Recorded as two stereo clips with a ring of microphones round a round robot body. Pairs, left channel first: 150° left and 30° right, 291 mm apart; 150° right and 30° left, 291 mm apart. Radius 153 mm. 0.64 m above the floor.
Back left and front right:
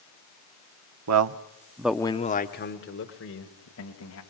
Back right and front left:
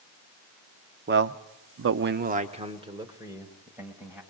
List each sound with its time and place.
1.1 s a man speaking: 20° right, 1.1 m; by 4.2 s 115° left, 3.5 m